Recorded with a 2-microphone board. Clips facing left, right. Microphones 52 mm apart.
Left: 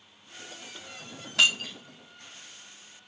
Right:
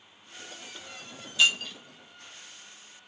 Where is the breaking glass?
80° left, 3.5 m.